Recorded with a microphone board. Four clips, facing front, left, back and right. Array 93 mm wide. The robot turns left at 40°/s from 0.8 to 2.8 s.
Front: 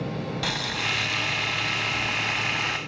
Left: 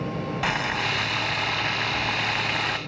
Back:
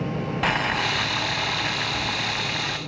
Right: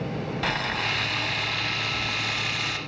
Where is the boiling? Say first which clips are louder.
Left 2 dB, back 8 dB; 165° left, 0.6 m; by 2.8 s 85° left, 0.6 m.